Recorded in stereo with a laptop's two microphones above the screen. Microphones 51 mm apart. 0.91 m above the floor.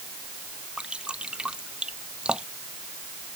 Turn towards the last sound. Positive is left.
turn(degrees=-15)  # may be behind; listen again after turning